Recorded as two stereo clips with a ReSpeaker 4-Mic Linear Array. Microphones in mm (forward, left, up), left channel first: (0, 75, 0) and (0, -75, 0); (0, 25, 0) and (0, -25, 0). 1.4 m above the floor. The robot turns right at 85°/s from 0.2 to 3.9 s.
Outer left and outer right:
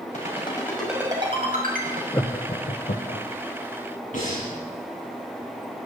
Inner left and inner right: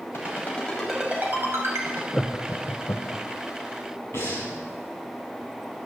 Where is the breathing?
60° left (ahead or behind), 8 m.